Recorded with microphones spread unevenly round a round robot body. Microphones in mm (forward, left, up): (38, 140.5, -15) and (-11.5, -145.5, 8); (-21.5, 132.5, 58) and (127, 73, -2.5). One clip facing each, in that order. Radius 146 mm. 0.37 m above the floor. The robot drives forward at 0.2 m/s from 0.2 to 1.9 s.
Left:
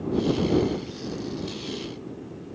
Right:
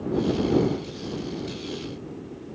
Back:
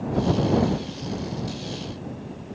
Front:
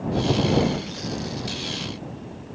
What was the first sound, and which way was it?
Only background noise.